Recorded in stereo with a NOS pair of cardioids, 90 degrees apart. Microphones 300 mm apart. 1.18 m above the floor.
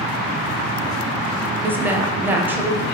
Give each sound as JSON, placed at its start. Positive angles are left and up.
{"t": 1.6, "sound": "a woman speaking", "azimuth_deg": -5, "distance_m": 0.6}